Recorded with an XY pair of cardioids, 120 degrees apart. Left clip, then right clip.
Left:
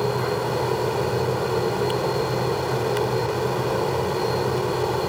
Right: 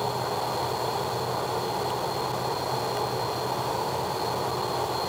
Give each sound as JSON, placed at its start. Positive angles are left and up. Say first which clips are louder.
{"t": 0.0, "sound": "a fan", "louder": "left 4 dB", "azimuth_deg": 55}